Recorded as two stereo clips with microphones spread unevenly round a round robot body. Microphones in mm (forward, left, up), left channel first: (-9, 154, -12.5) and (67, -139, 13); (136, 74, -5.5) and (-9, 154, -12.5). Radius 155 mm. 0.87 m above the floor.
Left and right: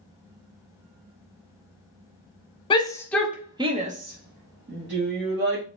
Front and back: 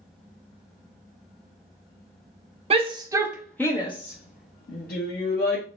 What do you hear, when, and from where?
2.7 s a shout: 165° left, 0.7 m; by 5.6 s 25° right, 1.3 m